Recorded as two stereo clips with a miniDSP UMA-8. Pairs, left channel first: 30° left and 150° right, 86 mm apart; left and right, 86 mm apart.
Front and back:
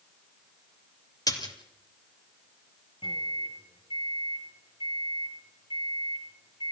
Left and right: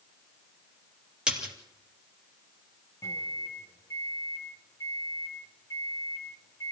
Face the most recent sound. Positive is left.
turn(degrees=40)